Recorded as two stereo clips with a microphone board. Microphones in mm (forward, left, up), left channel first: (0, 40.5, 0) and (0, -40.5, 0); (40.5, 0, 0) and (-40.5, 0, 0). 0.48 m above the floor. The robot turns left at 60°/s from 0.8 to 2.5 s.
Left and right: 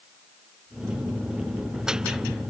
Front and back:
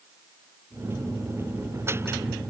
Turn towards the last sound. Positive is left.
No sound to turn to.